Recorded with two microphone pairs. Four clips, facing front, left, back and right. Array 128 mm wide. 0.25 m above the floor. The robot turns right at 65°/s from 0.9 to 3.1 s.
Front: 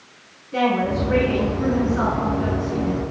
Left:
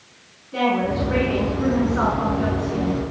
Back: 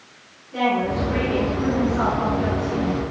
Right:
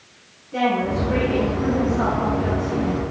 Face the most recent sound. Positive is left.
turn(degrees=155)